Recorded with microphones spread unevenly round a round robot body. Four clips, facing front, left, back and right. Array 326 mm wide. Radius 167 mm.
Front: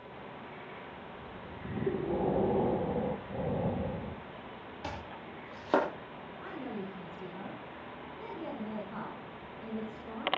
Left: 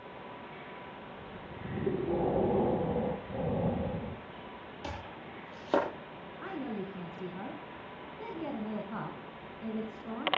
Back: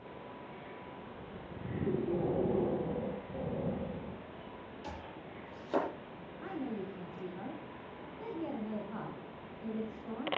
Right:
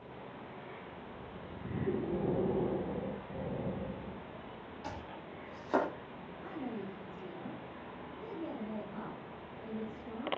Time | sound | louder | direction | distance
1.9 | breathing | left 4 dB, front 2 dB | 50° left | 1.1 m
4.8 | chopping | left 2 dB, front 5 dB | 30° left | 7 m
6.4 | a woman speaking | left 3 dB, back 1 dB | 75° left | 4 m